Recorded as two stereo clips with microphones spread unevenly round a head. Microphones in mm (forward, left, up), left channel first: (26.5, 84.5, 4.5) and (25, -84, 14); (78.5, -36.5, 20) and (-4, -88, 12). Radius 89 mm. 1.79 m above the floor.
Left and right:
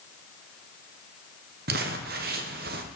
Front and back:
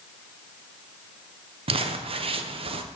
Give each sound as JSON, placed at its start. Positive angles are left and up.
{"t": 1.7, "sound": "crumpling", "azimuth_deg": -130, "distance_m": 1.1}